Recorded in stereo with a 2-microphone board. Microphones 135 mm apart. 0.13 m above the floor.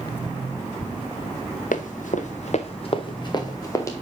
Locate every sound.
1.7 s running footsteps: 85° left, 1.4 m; by 3.9 s 25° left (ahead or behind), 2 m